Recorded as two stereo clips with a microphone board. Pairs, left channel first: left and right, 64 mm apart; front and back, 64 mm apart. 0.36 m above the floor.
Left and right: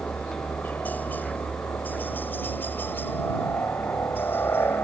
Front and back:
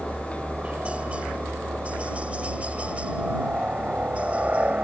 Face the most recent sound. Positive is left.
turn(degrees=125)